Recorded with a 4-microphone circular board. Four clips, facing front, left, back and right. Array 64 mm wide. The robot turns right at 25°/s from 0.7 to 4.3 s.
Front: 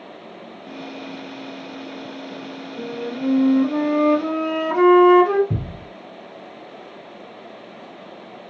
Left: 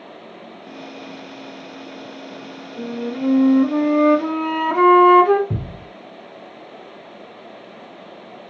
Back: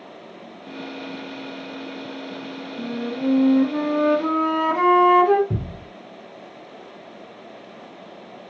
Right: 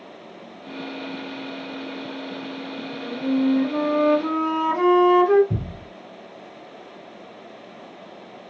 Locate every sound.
2.8 s a flute: 55° left, 1.2 m; by 5.4 s 90° left, 1.2 m
5.5 s a thud: 90° left, 1.8 m